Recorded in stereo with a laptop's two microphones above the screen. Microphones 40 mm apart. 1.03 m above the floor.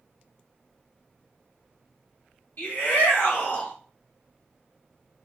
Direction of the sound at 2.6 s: 65° left (ahead or behind).